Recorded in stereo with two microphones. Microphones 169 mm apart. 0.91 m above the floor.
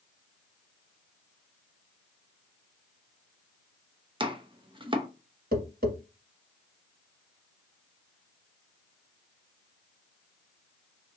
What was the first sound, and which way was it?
Chopping, 30° right (ahead or behind).